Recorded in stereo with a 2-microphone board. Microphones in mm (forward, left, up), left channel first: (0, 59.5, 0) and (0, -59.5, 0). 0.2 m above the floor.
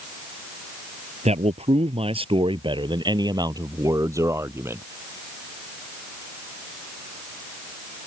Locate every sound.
1.2 s a man speaking: 65° right (ahead or behind); by 4.8 s 20° right (ahead or behind)